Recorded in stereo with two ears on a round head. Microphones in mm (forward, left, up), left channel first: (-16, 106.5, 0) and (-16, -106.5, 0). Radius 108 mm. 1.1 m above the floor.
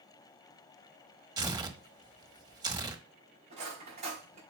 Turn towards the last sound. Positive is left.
turn(degrees=-30)  # may be behind; listen again after turning